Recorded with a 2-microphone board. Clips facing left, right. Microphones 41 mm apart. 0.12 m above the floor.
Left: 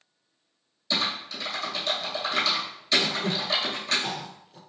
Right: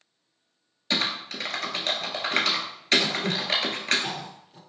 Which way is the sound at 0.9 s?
55° right (ahead or behind).